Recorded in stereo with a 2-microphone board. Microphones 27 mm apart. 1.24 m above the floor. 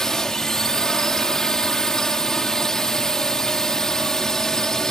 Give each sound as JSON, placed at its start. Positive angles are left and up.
{"t": 0.0, "sound": "a drone", "side_deg": 15}